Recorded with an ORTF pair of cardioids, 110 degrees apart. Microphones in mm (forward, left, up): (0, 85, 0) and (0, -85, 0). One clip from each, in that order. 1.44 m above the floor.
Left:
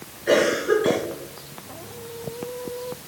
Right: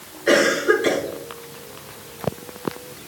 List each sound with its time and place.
0.3 s a cough: 40° right, 5 m